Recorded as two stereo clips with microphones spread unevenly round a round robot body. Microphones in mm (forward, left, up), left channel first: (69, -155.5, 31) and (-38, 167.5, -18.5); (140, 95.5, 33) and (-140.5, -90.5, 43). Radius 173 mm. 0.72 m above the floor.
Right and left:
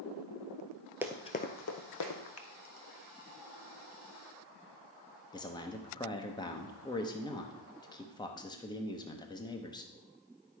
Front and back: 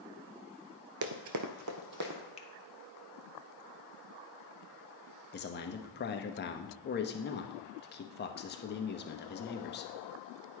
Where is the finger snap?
30° right, 1.0 m.